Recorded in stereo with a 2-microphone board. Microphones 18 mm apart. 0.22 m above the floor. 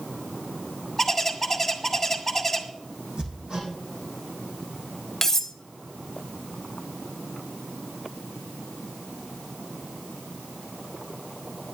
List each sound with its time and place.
1.0 s a bird: 10° left (ahead or behind), 1.7 m
3.2 s hammering: 45° right (ahead or behind), 7.5 m
5.2 s cutlery clinking: 20° left (ahead or behind), 0.6 m